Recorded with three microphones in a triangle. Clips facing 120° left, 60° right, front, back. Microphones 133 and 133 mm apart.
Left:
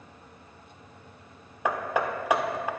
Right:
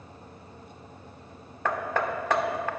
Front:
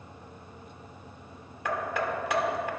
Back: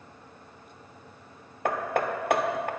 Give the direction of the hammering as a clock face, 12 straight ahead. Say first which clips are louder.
Left 1 dB, back 3 dB; 6 o'clock.